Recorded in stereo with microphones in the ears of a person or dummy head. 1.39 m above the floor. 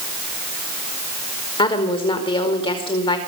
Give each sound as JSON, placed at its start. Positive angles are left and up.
{"t": 1.6, "sound": "a woman speaking", "side_deg": 25, "distance_m": 4.5}